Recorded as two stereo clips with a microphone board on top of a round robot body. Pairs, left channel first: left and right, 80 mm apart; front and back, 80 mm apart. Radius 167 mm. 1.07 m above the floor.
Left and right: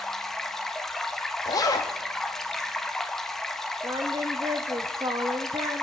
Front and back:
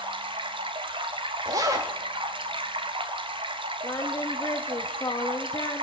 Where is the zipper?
135° left, 0.6 m.